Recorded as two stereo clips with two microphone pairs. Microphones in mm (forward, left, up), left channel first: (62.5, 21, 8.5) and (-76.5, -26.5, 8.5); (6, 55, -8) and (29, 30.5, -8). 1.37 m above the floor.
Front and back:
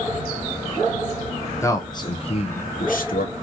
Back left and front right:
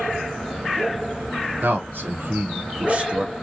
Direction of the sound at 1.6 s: 50° right.